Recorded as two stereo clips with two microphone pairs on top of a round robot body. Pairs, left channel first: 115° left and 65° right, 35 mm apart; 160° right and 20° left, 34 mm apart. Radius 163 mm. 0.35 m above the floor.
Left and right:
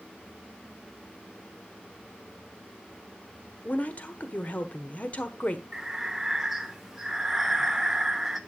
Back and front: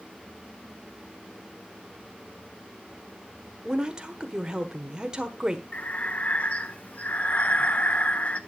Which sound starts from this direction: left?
A woman speaking, at 3.6 s.